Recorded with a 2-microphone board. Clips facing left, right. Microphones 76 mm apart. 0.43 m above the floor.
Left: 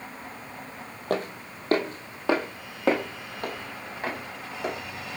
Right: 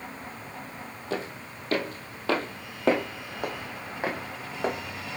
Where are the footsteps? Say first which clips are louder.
Left 5 dB; 55° left (ahead or behind), 1.0 m; by 4.7 s 30° right (ahead or behind), 1.7 m.